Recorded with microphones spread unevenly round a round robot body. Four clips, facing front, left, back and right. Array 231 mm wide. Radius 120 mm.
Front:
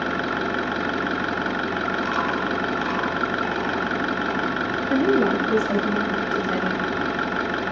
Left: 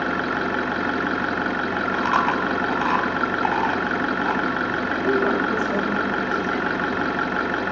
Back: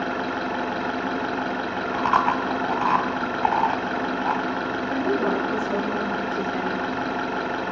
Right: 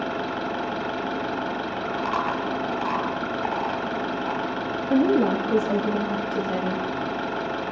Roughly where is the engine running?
Ahead left.